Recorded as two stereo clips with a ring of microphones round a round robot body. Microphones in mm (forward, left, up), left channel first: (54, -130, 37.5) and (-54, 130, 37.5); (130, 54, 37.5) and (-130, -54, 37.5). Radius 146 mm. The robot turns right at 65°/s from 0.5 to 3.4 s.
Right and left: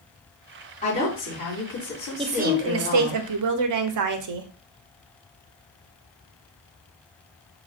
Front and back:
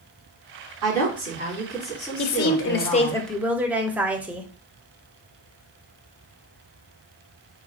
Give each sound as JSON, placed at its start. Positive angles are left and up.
{"t": 0.8, "sound": "a woman speaking", "azimuth_deg": -135, "distance_m": 2.5}
{"t": 2.2, "sound": "a woman speaking", "azimuth_deg": 40, "distance_m": 0.6}